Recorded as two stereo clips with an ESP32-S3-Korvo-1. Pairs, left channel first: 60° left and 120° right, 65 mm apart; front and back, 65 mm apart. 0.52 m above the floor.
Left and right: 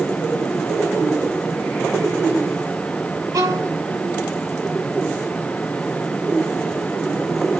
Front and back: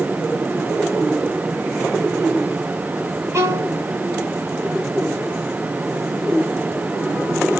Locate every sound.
3.3 s a violin: 140° right, 1.2 m